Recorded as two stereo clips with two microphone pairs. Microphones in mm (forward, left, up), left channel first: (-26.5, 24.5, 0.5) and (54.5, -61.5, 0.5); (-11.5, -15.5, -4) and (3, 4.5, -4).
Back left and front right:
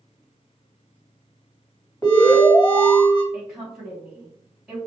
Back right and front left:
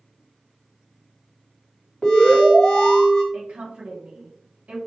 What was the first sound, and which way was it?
An alarm, 175° right.